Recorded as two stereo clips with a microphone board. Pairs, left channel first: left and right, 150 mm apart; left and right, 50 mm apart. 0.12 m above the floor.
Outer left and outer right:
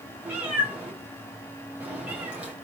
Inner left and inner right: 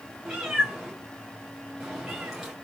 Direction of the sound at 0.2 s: 10° right (ahead or behind).